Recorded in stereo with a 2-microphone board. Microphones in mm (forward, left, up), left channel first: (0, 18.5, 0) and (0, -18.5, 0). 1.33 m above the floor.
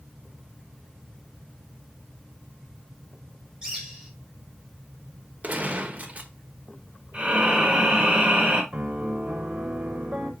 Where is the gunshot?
45° right (ahead or behind), 0.9 m.